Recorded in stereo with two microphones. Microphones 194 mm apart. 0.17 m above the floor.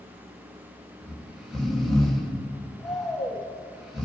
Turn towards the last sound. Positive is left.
turn(degrees=0)  # may be behind; listen again after turning